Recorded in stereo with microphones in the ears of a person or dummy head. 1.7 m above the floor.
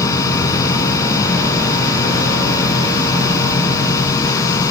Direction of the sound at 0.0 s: 20° left (ahead or behind).